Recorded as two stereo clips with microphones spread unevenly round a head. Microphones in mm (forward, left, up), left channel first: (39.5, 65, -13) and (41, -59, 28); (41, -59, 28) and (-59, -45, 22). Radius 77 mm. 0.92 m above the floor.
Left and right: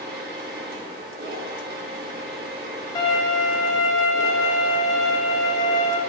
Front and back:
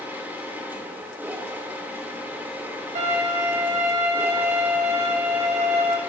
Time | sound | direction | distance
0.0 | a machine running | 120° right | 2.5 m
3.0 | a violin | 160° left | 2.5 m